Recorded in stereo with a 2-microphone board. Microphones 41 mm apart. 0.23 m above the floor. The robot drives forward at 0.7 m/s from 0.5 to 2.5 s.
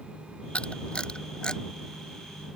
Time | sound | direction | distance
0.6 | a camera shutter | 25° left (ahead or behind) | ?